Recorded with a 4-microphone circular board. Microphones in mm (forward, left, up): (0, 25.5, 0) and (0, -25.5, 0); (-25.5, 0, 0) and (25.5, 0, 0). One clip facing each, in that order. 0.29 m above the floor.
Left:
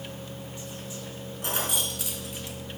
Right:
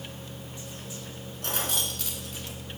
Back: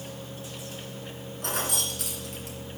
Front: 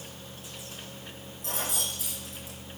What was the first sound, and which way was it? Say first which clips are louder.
Keys jangling: left 1 dB, back 3 dB; 165° left.